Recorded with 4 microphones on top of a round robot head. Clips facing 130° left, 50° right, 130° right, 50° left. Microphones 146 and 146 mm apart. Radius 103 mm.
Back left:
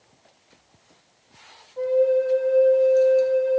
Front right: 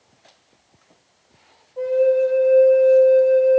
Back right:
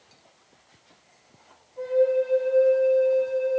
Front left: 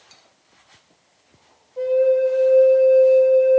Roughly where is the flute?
Ahead left.